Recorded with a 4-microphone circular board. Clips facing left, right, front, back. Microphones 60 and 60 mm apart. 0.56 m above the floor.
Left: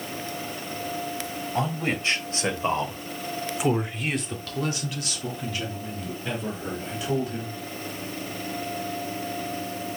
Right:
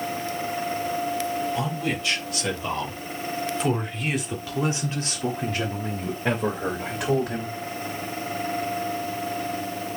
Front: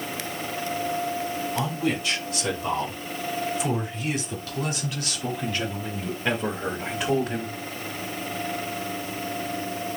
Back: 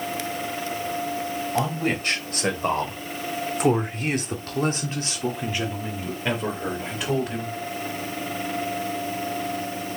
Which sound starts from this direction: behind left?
A man speaking, at 1.6 s.